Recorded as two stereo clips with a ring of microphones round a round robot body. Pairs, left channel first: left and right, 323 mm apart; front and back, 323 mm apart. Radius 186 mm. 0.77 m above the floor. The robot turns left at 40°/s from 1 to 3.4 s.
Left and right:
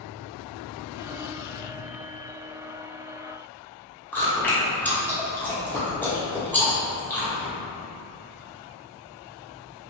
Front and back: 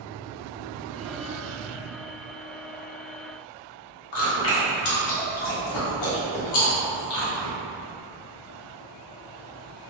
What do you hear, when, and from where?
4.1 s chewing: 5° left, 1.1 m